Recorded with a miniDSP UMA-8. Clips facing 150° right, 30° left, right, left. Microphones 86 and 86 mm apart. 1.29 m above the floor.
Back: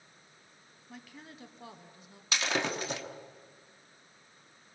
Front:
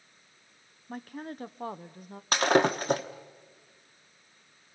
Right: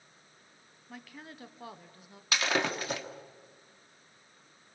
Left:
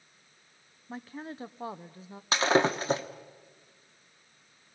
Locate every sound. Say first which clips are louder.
0.9 s a woman speaking: front 11 dB, left 7 dB; 40° left, 0.7 m
2.3 s breaking glass: front 9 dB, left 6 dB; 45° left, 1.0 m